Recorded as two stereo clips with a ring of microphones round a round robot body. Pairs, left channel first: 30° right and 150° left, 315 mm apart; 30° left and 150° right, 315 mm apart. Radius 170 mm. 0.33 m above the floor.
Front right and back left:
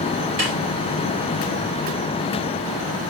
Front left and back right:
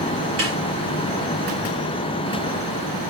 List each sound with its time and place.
0.4 s a snare drum: 160° left, 6.5 m